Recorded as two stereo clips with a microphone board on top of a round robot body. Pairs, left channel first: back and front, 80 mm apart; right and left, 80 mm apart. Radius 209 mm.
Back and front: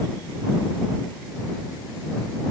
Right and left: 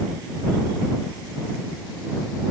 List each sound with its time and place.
Only background noise.